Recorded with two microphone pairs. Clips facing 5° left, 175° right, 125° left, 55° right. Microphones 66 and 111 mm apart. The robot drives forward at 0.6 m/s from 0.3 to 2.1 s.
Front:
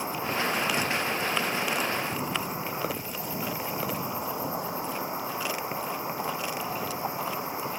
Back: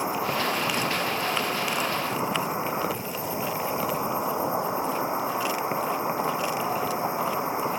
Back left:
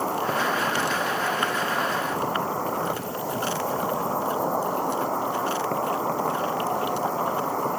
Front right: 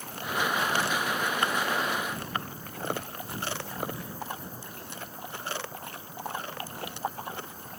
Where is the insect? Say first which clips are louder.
Back 3 dB, back left 8 dB; 115° left; by 7.8 s 120° left.